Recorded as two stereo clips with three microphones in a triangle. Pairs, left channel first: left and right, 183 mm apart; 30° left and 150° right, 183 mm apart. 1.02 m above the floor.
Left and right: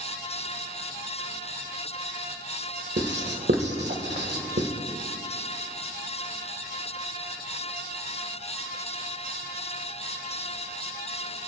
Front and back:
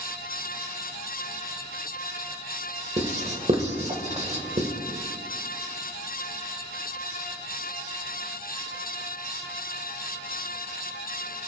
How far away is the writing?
About 1.5 m.